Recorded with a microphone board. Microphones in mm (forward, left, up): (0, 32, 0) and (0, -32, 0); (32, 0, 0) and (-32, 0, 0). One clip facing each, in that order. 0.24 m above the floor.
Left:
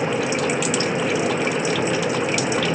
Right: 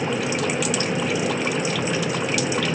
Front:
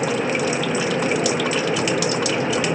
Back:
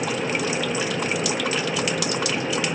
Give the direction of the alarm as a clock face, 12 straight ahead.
No alarm in this recording.